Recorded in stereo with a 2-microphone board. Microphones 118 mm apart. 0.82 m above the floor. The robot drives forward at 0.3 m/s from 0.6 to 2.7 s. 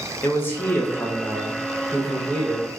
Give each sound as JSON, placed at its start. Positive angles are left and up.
{"t": 0.2, "sound": "a man speaking", "side_deg": 20, "distance_m": 0.6}